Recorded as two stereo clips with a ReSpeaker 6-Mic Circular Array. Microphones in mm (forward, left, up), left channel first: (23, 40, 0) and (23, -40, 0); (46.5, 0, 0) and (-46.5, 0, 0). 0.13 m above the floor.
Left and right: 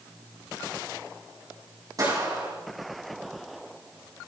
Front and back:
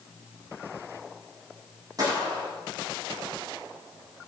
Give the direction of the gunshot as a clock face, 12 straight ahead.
4 o'clock.